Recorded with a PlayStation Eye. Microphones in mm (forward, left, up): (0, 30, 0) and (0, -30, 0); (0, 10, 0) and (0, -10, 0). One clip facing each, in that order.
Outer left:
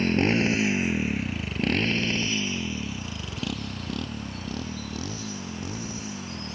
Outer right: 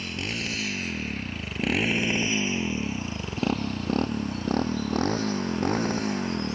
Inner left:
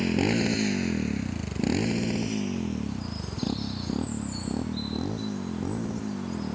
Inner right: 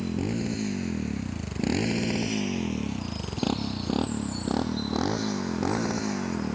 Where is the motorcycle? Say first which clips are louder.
Outer left 10 dB, inner left 5 dB; 45° left (ahead or behind); by 6.5 s 60° right (ahead or behind).